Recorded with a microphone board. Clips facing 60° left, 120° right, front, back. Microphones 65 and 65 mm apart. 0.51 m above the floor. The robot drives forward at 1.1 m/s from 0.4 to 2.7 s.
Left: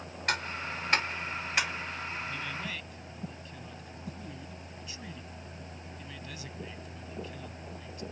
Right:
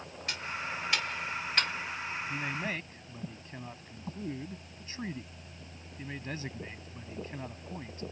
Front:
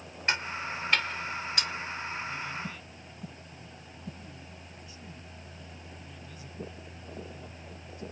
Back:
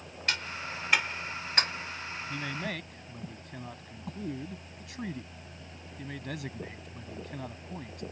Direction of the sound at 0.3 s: 60° left.